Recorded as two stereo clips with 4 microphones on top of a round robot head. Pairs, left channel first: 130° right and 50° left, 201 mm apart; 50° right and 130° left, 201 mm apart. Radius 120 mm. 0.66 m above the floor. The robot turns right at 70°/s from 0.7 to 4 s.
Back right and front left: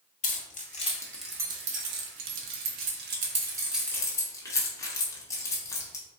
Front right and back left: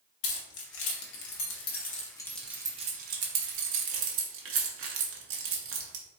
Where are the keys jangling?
80° right, 0.9 m; by 6.0 s 150° left, 0.9 m.